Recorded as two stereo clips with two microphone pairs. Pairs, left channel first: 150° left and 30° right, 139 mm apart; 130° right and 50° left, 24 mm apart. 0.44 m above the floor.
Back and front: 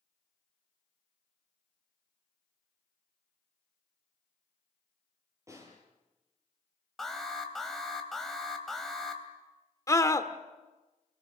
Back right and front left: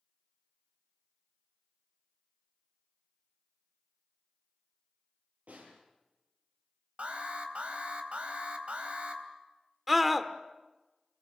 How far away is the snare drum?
About 7.5 m.